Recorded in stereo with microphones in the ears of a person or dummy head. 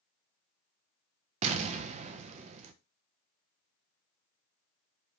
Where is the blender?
I don't hear a blender.